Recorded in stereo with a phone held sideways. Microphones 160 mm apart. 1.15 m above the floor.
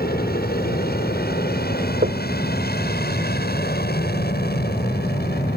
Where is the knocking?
80° right.